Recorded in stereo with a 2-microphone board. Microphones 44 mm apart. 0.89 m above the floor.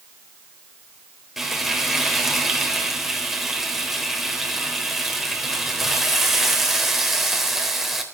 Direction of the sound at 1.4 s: 5° right (ahead or behind).